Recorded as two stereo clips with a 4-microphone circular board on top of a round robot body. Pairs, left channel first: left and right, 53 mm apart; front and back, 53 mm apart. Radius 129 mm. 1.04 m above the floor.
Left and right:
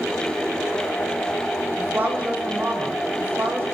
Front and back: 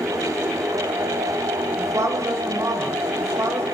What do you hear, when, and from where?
1.8 s a woman speaking: 155° right, 5.5 m; by 3.6 s 145° right, 5 m